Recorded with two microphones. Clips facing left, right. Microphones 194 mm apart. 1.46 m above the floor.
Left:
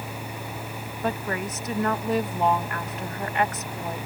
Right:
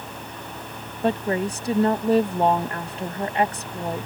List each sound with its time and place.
1.0 s a woman speaking: 30° right (ahead or behind)